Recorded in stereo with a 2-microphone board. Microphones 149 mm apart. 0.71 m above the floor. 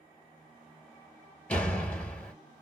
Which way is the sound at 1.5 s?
10° left (ahead or behind).